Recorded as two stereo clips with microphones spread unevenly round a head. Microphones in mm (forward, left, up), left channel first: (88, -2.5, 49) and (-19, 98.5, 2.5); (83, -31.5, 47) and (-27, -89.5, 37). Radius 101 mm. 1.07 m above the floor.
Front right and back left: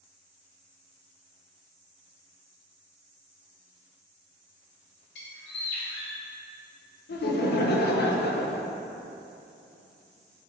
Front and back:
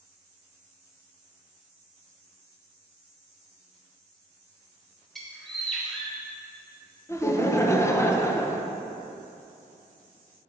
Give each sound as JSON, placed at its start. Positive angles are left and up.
{"t": 5.2, "sound": "a bird", "azimuth_deg": -65, "distance_m": 1.6}
{"t": 7.1, "sound": "laughter", "azimuth_deg": -40, "distance_m": 0.9}